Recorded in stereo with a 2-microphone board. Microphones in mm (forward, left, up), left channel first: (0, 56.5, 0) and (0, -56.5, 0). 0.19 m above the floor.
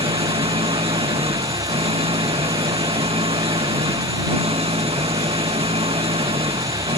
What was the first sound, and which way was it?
An engine running, 60° right (ahead or behind).